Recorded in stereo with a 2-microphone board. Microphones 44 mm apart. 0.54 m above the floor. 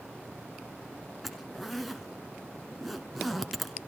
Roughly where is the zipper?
Centre.